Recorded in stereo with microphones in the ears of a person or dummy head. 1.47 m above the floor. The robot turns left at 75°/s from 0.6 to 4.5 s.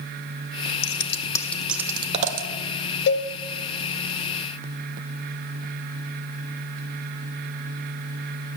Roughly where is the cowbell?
Left.